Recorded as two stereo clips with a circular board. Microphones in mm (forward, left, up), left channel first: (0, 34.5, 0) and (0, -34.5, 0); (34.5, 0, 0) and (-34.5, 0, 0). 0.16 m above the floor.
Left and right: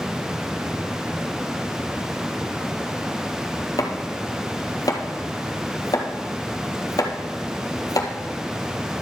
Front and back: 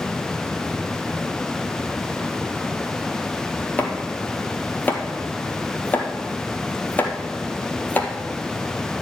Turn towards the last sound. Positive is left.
turn(degrees=65)